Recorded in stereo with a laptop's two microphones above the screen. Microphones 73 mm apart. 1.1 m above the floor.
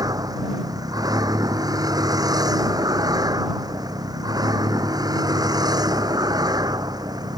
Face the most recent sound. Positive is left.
turn(degrees=-65)  # may be behind; listen again after turning